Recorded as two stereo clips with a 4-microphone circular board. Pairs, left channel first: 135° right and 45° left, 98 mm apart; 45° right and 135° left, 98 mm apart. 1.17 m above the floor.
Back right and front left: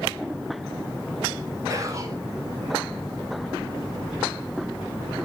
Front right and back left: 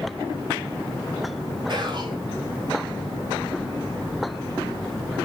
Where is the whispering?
100° left, 3.5 m.